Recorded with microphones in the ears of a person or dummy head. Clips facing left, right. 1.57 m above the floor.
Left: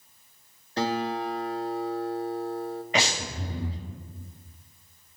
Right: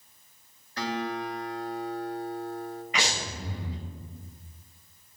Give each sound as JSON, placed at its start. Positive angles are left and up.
{"t": 0.8, "sound": "a guitar", "side_deg": 30, "distance_m": 1.1}
{"t": 2.9, "sound": "breathing", "side_deg": 35, "distance_m": 5.0}